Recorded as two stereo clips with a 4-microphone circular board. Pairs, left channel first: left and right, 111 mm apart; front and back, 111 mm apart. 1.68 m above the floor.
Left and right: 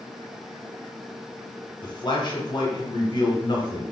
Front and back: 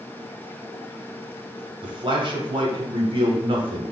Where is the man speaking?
140° left, 0.8 m.